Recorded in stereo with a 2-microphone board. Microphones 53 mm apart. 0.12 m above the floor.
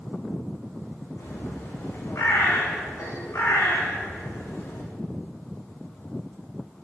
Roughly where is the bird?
Left.